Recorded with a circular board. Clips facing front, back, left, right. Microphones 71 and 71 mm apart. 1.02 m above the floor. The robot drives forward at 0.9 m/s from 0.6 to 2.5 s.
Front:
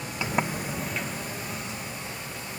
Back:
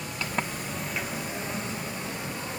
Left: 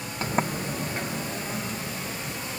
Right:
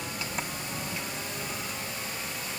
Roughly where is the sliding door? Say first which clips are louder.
Front 4 dB, left 13 dB; ahead left.